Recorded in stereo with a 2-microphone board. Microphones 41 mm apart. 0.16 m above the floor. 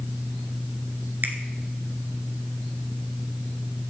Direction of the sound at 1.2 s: 50° right (ahead or behind).